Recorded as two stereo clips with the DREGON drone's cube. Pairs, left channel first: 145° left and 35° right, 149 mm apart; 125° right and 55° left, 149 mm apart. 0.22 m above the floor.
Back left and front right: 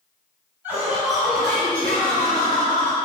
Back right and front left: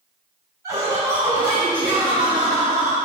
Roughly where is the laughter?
Ahead left.